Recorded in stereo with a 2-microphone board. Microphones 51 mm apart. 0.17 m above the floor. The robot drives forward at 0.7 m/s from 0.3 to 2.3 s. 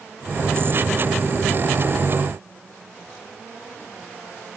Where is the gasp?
I don't hear a gasp.